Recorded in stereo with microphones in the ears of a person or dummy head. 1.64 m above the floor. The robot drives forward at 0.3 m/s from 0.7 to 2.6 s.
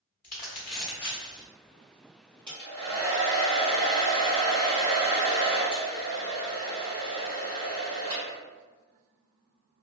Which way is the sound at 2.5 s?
35° right (ahead or behind).